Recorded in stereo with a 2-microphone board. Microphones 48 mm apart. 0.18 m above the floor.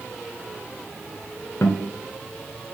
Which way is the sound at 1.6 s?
65° left (ahead or behind).